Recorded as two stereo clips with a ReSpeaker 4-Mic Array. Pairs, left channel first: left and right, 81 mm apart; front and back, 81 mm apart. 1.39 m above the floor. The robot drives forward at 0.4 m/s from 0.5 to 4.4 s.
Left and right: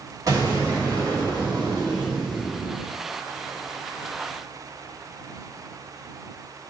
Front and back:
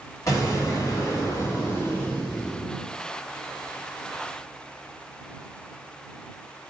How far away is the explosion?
About 1.9 m.